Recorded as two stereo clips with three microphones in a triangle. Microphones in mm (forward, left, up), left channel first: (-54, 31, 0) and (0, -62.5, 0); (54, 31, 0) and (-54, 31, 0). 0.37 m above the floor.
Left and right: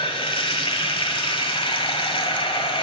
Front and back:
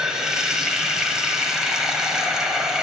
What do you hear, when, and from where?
0.0 s running water: 95° left, 1.2 m